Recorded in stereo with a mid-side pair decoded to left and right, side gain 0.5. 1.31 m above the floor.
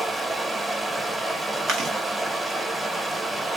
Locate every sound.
0.0 s running water: 15° right, 1.1 m
1.7 s chewing: 60° right, 0.8 m